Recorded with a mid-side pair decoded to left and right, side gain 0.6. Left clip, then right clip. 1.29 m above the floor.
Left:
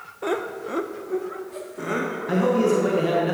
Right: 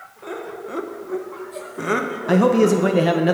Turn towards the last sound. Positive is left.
turn(degrees=-45)